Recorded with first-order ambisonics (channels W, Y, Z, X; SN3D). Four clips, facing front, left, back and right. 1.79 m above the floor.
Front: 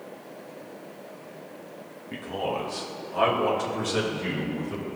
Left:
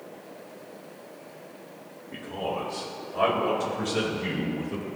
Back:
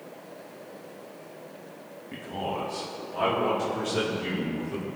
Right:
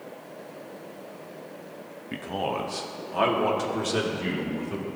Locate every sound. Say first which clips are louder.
2.1 s a man speaking: right 2 dB, front 3 dB; 80° right, 1.0 m; by 4.9 s 70° right, 3.5 m